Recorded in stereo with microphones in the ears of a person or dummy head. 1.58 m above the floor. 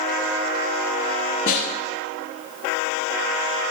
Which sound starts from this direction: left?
A snare drum, at 1.5 s.